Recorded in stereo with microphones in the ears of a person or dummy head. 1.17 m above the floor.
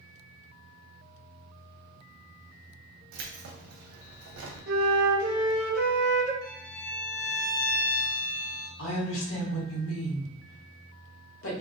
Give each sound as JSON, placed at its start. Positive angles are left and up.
{"t": 3.1, "sound": "keys jangling", "side_deg": -75, "distance_m": 0.6}
{"t": 4.7, "sound": "a flute", "side_deg": -55, "distance_m": 0.6}
{"t": 6.4, "sound": "a violin", "side_deg": 60, "distance_m": 1.2}
{"t": 8.8, "sound": "a woman speaking", "side_deg": 65, "distance_m": 1.0}